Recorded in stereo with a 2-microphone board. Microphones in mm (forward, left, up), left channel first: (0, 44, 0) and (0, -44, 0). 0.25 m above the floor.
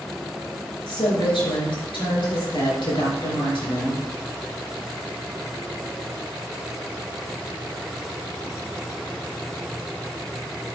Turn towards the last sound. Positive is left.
turn(degrees=70)  # may be behind; listen again after turning